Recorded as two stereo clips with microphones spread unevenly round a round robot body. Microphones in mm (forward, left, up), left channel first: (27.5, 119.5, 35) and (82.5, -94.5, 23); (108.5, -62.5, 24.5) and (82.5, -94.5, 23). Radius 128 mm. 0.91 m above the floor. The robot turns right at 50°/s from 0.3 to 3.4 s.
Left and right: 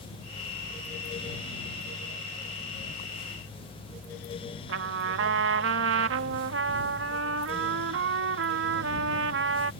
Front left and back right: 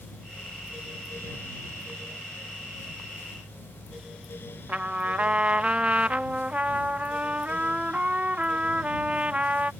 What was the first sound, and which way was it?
A trumpet, 75° right.